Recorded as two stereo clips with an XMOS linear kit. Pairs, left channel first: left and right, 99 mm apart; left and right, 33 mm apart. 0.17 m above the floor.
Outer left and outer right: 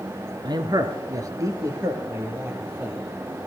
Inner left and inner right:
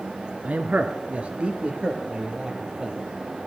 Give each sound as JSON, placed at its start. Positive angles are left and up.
{"t": 0.4, "sound": "a man speaking", "side_deg": -45, "distance_m": 1.8}